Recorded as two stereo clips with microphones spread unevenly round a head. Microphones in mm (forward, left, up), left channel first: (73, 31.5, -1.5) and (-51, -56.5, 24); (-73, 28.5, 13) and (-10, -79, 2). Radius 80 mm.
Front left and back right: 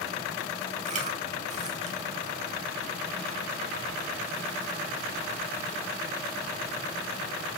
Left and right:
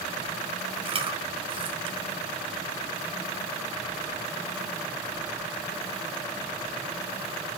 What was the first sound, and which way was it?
Chewing, 105° right.